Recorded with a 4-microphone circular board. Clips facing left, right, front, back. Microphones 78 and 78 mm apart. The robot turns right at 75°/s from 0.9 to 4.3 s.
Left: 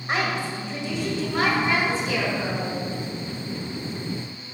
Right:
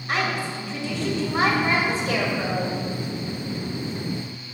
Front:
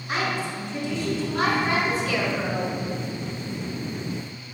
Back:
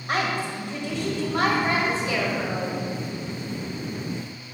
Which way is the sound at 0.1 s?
155° left.